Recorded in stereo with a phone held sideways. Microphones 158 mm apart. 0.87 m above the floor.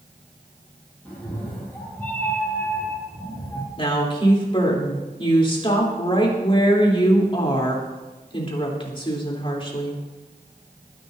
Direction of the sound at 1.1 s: 5° left (ahead or behind).